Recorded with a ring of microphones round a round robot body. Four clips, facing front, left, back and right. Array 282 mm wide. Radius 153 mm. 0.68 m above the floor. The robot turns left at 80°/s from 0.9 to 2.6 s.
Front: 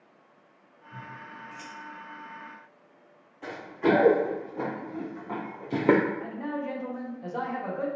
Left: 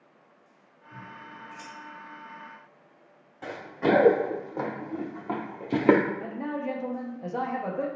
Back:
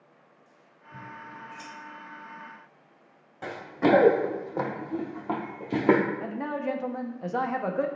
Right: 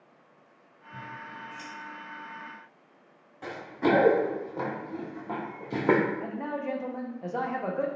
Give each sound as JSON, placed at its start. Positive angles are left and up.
{"t": 0.9, "sound": "scissors", "azimuth_deg": 65, "distance_m": 1.6}
{"t": 3.4, "sound": "running footsteps", "azimuth_deg": 180, "distance_m": 1.9}
{"t": 6.2, "sound": "a man speaking", "azimuth_deg": -175, "distance_m": 0.6}